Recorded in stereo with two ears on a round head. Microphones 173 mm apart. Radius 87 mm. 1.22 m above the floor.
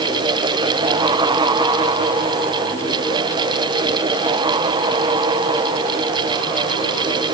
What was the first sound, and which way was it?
Only background noise.